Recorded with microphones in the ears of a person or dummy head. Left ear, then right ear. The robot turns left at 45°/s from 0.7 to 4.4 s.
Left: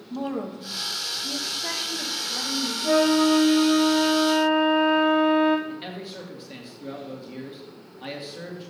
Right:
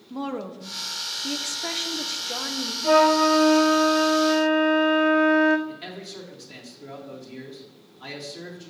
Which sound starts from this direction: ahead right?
A woman speaking, at 0.1 s.